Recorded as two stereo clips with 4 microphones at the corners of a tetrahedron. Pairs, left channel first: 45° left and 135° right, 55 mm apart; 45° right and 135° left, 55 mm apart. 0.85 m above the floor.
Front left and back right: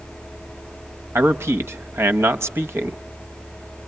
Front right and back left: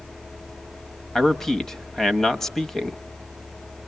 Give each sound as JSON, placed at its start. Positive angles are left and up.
{"t": 1.1, "sound": "a man speaking", "azimuth_deg": -120, "distance_m": 0.9}